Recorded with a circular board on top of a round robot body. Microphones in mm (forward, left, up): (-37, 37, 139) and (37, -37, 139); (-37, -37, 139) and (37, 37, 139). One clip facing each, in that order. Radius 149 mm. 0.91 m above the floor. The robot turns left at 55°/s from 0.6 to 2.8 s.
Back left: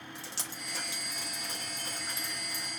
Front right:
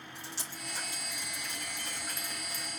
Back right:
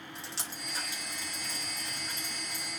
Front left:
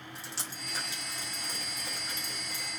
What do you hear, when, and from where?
0.1 s dripping: 135° left, 4 m; by 2.7 s 20° left, 4 m